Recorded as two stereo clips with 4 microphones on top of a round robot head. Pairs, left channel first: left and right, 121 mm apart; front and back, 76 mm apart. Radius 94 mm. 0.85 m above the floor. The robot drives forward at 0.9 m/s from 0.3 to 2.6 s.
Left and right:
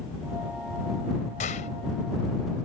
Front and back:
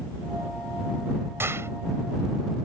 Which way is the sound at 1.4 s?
120° left.